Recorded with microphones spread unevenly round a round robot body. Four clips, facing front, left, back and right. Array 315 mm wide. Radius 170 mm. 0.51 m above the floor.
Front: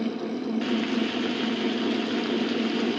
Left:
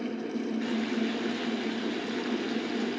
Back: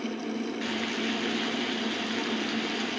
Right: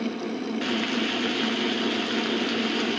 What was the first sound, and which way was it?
Frying, 75° right.